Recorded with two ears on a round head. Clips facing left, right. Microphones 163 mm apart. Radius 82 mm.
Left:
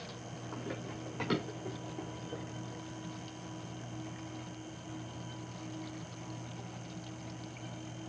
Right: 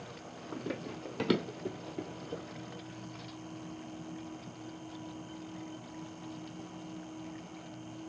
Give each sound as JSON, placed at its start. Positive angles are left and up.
{"t": 0.5, "sound": "running footsteps", "side_deg": -50, "distance_m": 1.8}